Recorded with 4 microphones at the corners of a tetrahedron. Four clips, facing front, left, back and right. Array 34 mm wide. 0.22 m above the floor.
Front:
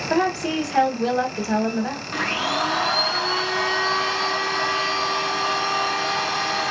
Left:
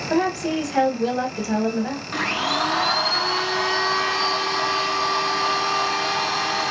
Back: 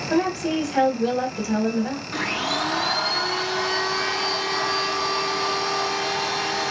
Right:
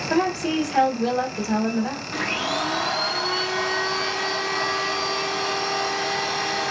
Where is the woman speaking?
5° right, 1.3 m.